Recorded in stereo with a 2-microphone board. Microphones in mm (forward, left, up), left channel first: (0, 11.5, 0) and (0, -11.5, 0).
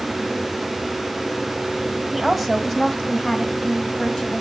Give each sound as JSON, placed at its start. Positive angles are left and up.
{"t": 2.1, "sound": "a woman speaking", "side_deg": -5, "distance_m": 1.3}